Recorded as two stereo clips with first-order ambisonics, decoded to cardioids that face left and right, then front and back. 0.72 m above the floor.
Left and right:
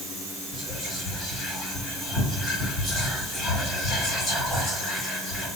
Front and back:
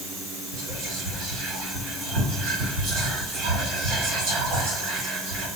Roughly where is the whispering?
Behind.